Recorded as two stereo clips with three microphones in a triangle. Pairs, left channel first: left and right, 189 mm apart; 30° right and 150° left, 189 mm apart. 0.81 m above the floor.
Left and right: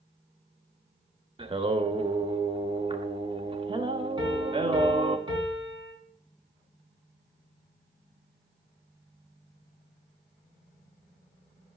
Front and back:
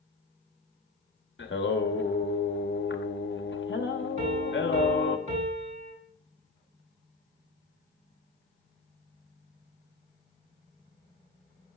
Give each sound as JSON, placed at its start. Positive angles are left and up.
{"t": 1.4, "sound": "singing", "azimuth_deg": -25, "distance_m": 0.8}
{"t": 4.2, "sound": "a piano", "azimuth_deg": -160, "distance_m": 3.5}